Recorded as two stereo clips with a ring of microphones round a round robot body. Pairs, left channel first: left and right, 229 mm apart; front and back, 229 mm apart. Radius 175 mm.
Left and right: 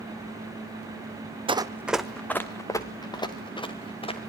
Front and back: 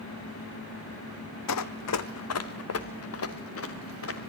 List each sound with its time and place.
1.5 s running footsteps: 20° right, 1.1 m; by 4.2 s 25° left, 4 m